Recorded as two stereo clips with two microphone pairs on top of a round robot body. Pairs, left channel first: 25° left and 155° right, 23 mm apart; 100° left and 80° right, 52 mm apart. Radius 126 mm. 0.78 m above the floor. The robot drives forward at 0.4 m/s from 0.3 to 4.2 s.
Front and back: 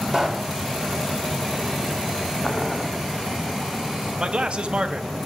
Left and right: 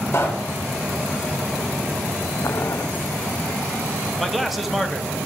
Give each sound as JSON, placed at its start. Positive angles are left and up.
{"t": 0.1, "sound": "a pop", "azimuth_deg": 90, "distance_m": 0.6}
{"t": 2.4, "sound": "boiling", "azimuth_deg": 125, "distance_m": 0.6}
{"t": 4.2, "sound": "a man speaking", "azimuth_deg": -165, "distance_m": 1.1}